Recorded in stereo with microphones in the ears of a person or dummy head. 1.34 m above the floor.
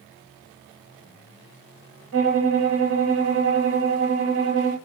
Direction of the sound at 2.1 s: 80° right.